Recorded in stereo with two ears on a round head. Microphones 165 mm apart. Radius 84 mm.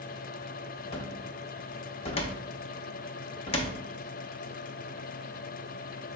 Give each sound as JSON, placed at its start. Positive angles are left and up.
{"t": 0.9, "sound": "a cupboard door", "side_deg": 30, "distance_m": 0.7}